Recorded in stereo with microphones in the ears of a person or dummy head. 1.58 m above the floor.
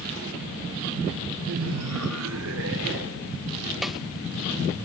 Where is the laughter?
55° right (ahead or behind), 0.6 m; by 3.4 s 65° right (ahead or behind), 2.5 m.